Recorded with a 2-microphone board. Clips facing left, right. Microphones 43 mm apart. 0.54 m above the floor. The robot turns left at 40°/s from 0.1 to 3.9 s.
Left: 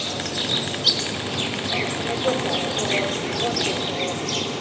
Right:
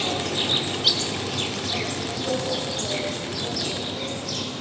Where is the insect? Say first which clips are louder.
Right 2 dB; 145° right, 0.9 m; by 4.6 s 65° left, 0.9 m.